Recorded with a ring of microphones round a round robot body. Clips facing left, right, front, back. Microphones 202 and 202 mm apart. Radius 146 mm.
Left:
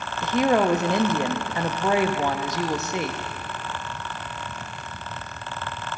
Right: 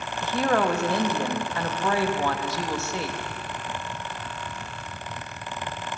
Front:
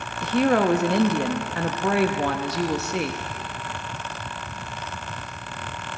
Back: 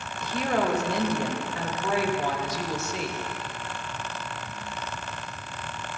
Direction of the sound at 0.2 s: 20° left.